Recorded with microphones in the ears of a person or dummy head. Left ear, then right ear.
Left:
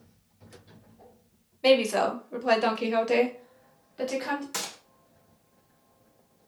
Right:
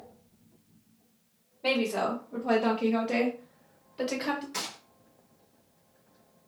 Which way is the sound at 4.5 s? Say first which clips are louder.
Left 1 dB; 35° left (ahead or behind).